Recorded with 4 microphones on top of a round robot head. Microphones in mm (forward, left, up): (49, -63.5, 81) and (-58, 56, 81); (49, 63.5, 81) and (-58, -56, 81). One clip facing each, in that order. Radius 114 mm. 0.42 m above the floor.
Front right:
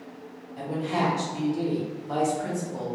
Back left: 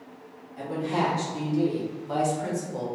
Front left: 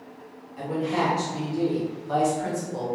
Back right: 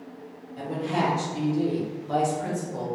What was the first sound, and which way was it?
A woman speaking, 90° right.